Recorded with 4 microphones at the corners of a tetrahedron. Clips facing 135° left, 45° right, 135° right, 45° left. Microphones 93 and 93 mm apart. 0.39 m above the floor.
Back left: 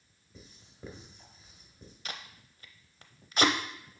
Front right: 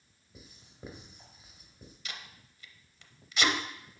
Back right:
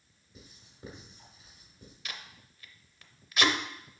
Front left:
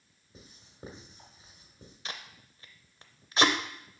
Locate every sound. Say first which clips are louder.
0.3 s writing: even, front left 3 dB; 25° left, 1.7 m
2.0 s tape being pulled: back left 3 dB, front left 2 dB; 100° left, 0.6 m